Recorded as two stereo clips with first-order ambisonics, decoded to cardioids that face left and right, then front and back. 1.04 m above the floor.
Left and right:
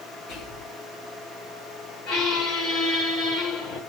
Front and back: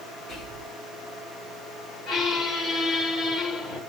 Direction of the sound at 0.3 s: 70° left.